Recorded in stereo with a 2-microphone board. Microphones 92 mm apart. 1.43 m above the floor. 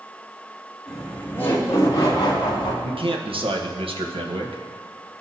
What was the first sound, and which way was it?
Laughter, 5° left (ahead or behind).